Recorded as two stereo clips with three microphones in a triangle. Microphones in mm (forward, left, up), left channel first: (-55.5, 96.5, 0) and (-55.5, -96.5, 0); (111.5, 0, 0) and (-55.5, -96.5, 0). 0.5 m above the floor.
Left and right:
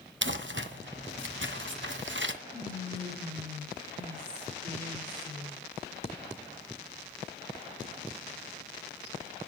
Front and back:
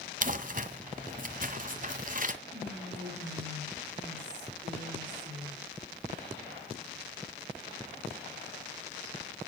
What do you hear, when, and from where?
0.2 s crumpling: 105° right, 1.6 m
2.5 s whispering: 130° right, 8 m